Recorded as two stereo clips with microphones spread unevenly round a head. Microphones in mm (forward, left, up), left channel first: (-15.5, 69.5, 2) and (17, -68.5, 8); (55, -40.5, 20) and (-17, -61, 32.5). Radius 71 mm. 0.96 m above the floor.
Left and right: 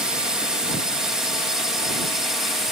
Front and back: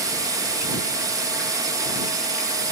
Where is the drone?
160° right; by 2.7 s 165° right.